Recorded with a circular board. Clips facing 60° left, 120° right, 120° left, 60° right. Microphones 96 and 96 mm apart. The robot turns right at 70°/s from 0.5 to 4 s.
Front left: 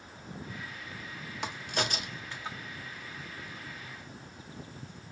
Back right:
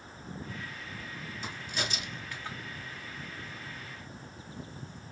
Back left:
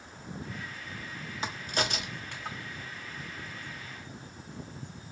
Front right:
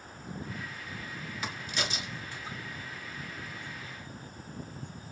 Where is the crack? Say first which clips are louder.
Front left 5 dB, back left 4 dB; 60° left, 1.2 m; by 2.6 s 140° left, 1.2 m.